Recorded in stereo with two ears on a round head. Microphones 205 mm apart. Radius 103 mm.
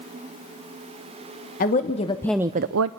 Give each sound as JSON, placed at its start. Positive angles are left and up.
{"t": 1.6, "sound": "a woman speaking", "side_deg": 35, "distance_m": 1.5}